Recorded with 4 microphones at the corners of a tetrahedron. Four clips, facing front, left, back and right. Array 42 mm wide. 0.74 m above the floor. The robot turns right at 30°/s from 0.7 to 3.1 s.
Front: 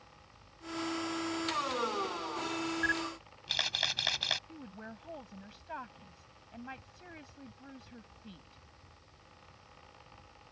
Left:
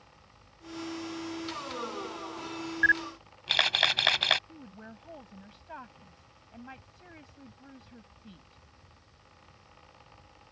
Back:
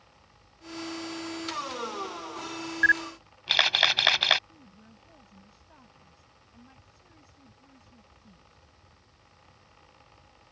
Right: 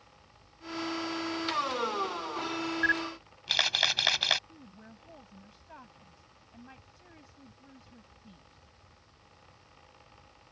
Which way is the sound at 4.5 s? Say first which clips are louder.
Left 4 dB, front 7 dB; 25° left.